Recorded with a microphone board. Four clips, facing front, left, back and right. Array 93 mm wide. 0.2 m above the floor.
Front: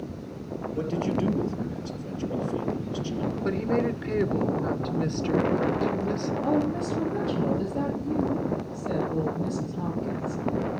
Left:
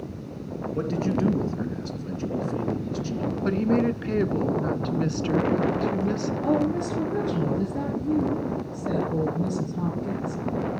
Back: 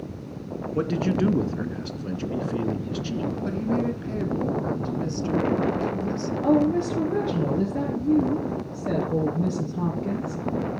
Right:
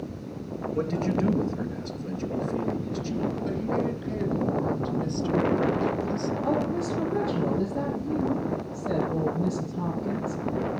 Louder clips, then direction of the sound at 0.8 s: Left 1 dB, back 4 dB; straight behind.